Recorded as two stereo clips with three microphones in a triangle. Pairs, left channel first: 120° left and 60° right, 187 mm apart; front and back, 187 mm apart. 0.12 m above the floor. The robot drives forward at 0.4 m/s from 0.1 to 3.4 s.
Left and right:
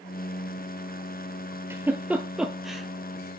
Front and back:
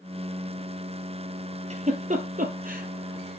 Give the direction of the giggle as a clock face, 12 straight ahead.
5 o'clock.